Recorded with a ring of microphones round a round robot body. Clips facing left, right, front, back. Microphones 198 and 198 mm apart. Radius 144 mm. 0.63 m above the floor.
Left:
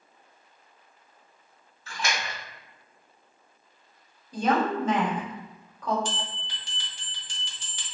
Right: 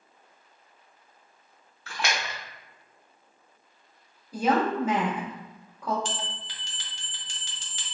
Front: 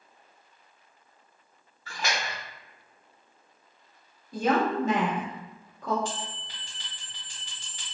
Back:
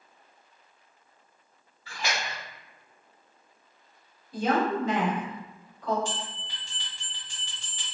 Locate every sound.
1.9 s a splash: 60° right, 0.8 m
4.3 s a woman speaking: 10° right, 1.5 m
6.0 s a bell: 80° right, 0.9 m